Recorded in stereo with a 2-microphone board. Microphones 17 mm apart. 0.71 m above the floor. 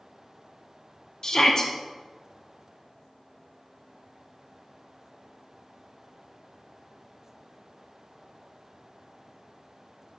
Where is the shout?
40° left (ahead or behind), 0.8 m.